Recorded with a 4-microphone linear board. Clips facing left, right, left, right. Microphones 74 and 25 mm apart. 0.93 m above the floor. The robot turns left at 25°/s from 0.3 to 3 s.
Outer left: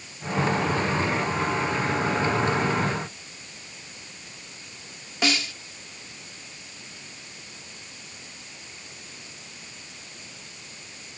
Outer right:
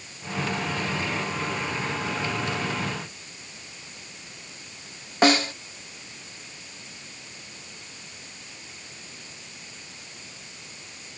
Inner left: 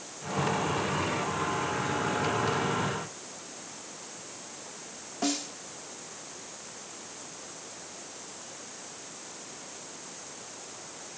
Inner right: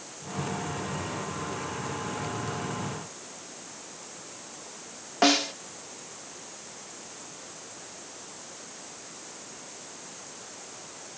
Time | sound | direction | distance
5.2 | a snare drum | 50° right (ahead or behind) | ?